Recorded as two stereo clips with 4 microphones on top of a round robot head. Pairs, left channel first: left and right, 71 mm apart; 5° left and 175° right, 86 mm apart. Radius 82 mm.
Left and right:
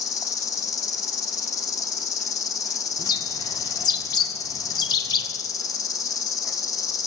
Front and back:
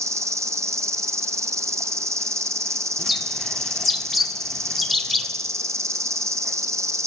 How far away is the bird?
About 1.7 m.